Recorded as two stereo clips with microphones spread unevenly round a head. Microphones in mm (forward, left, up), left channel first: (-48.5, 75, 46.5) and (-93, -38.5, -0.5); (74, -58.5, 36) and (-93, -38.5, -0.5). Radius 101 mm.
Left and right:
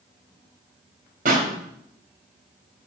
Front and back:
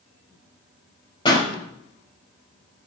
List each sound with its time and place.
1.2 s a pop: 70° right, 4 m